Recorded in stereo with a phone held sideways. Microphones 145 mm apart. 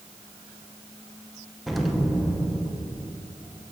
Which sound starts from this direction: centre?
An explosion, at 1.7 s.